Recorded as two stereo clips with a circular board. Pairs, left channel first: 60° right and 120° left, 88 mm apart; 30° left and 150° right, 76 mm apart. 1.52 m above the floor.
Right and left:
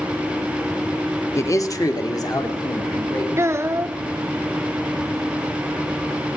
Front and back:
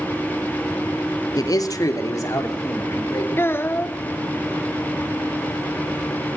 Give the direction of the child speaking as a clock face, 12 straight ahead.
9 o'clock.